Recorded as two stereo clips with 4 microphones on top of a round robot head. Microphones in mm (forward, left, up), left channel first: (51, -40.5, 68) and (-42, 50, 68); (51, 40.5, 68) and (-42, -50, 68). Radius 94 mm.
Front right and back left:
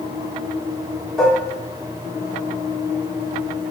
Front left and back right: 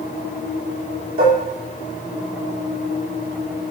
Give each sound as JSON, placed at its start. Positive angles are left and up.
{"t": 1.2, "sound": "dishes clattering", "azimuth_deg": -130, "distance_m": 2.5}